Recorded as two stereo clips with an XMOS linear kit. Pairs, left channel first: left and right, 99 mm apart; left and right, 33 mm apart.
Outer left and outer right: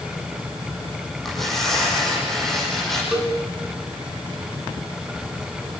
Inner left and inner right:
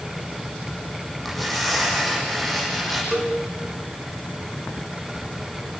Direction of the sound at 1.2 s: 5° left (ahead or behind).